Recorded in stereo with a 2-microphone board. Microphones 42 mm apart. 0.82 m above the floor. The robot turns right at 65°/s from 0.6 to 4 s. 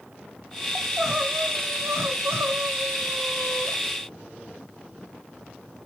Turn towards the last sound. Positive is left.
turn(degrees=25)